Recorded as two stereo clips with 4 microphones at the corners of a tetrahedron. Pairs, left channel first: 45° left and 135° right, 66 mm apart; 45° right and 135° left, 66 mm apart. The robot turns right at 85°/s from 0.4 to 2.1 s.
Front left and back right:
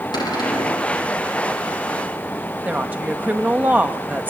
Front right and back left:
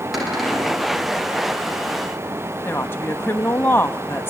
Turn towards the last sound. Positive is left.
turn(degrees=-85)